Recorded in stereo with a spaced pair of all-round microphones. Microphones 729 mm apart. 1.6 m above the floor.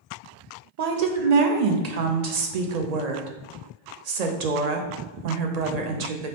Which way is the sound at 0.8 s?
60° right (ahead or behind).